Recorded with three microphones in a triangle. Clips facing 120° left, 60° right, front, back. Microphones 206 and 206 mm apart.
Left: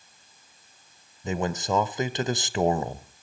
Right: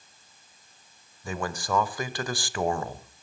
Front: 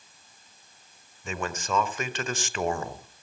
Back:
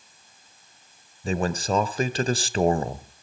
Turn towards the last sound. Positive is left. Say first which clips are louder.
# left 4 dB, back 7 dB
turn(degrees=170)